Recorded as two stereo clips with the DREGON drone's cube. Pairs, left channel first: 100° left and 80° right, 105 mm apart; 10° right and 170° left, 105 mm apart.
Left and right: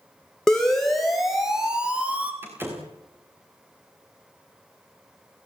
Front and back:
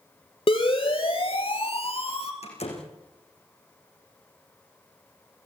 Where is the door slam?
10° right, 7 m.